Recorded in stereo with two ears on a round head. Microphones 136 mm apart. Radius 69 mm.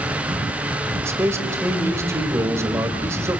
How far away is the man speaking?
About 2.5 m.